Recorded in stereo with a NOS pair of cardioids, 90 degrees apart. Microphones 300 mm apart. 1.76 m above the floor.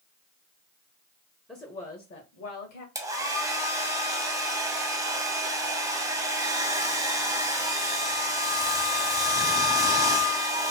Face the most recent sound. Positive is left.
turn(degrees=-10)